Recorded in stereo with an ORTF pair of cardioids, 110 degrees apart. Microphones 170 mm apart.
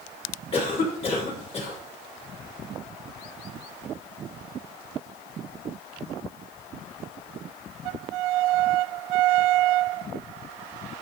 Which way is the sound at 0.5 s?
35° left.